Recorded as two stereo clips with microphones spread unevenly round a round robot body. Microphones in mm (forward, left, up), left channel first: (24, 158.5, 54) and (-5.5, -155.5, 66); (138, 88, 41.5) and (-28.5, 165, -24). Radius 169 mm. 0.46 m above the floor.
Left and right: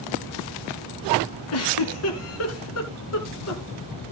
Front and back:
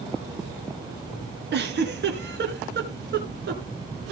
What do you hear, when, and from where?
1.5 s a giggle: 130° left, 3 m